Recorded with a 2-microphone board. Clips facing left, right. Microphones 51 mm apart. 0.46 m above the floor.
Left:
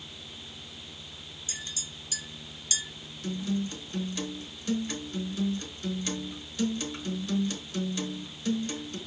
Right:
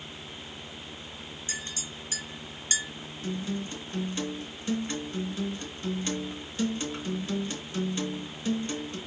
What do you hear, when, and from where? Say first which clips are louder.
1.5 s a clink: right 3 dB; 40° right (ahead or behind), 4.5 m
3.2 s a guitar: left 2 dB; 25° right (ahead or behind), 4 m